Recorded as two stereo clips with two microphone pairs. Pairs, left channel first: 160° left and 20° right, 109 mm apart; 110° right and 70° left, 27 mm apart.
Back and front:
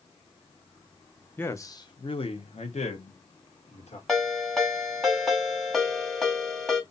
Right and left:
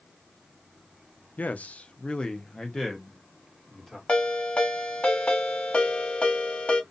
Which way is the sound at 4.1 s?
105° right.